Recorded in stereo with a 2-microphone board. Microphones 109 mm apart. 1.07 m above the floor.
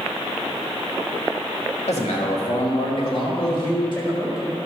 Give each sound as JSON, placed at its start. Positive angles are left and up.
{"t": 1.9, "sound": "a man speaking", "side_deg": 75, "distance_m": 1.7}